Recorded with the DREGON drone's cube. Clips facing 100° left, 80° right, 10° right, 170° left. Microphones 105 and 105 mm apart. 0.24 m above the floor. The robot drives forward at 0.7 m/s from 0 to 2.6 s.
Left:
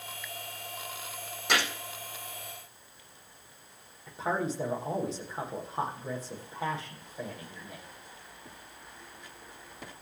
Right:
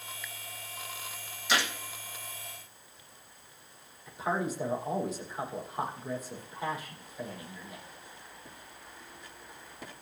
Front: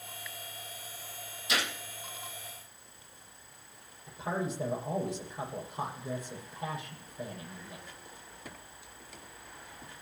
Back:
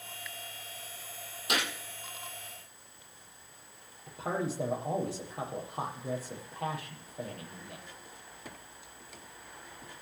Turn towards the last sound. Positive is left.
turn(degrees=160)